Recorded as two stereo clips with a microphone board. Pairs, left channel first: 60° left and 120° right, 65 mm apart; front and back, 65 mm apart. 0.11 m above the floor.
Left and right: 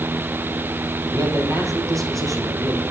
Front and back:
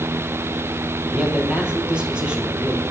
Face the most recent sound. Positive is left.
turn(degrees=-110)